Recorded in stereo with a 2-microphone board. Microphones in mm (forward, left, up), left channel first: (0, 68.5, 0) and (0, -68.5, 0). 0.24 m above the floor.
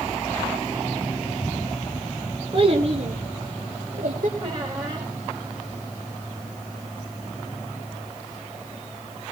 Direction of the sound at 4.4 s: 35° right (ahead or behind).